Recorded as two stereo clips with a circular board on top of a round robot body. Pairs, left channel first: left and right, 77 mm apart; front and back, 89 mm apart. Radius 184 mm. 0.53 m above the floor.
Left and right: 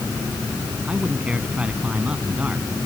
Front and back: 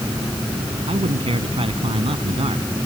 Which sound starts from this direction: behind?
A man speaking, at 0.9 s.